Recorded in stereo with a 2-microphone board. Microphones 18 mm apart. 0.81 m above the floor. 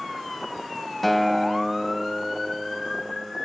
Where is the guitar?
5° left (ahead or behind), 0.7 m.